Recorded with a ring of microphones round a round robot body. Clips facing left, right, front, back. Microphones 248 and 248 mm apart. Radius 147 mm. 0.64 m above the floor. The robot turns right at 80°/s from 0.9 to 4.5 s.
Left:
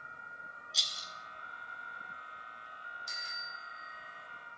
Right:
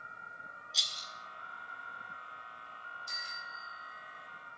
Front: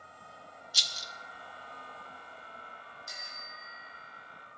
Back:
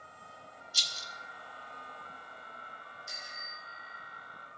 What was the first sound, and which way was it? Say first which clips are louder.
A rattle: even, front 1 dB; straight ahead.